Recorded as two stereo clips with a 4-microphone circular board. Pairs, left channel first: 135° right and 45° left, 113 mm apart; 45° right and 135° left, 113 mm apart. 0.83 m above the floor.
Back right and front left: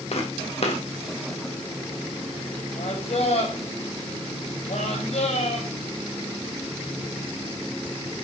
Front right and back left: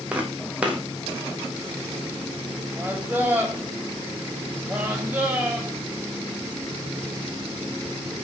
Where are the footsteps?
145° right, 2.5 m.